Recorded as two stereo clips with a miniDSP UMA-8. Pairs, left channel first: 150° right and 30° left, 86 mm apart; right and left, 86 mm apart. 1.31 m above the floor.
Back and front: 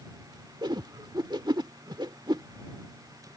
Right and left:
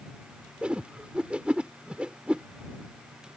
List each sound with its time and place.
0.6 s a whoosh: 15° left